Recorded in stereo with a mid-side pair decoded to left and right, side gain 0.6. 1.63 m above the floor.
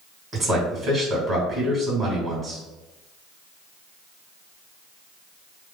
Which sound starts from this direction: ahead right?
A man speaking, at 0.3 s.